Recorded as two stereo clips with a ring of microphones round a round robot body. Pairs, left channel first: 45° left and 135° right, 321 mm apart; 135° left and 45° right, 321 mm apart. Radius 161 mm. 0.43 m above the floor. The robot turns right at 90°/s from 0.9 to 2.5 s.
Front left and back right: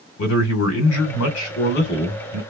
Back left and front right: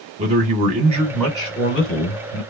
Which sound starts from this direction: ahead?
A man speaking, at 0.2 s.